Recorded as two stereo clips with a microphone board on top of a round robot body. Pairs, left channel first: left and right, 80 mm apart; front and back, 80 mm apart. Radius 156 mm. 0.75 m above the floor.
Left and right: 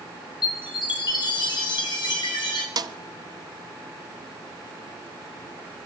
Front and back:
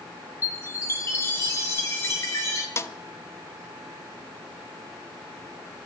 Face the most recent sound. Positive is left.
turn(degrees=-55)